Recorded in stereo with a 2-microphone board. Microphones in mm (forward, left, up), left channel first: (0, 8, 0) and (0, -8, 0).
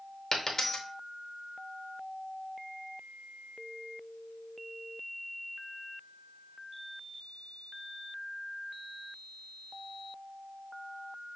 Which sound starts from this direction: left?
A dropped coin, at 0.3 s.